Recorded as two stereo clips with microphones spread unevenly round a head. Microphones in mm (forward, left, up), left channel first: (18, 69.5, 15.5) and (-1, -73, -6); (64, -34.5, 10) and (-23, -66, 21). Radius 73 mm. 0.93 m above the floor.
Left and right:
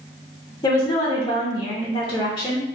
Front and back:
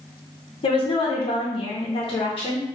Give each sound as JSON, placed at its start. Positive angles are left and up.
{"t": 0.6, "sound": "a woman speaking", "azimuth_deg": 15, "distance_m": 0.8}